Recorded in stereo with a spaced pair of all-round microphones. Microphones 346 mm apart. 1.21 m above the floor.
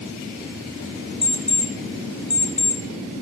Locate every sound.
1.2 s an alarm clock: 55° left (ahead or behind), 1.5 m